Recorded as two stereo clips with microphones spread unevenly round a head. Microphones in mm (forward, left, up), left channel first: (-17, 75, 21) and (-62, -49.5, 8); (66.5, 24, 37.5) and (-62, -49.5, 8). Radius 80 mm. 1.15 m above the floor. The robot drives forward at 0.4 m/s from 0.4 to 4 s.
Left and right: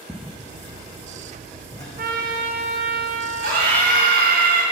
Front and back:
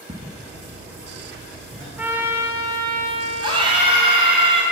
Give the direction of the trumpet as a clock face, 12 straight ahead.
2 o'clock.